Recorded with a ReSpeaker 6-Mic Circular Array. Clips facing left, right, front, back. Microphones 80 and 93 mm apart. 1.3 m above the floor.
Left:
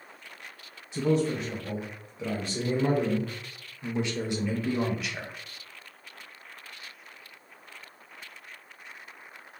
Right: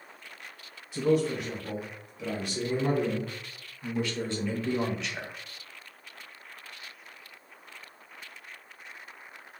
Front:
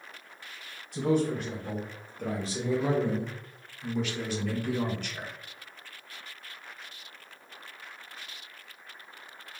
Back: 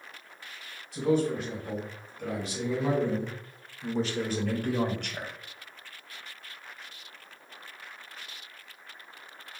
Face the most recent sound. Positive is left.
turn(degrees=180)